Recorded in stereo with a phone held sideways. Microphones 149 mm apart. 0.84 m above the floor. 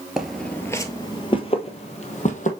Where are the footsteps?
5° right (ahead or behind), 1.0 m; by 2.5 s 55° left (ahead or behind), 1.8 m.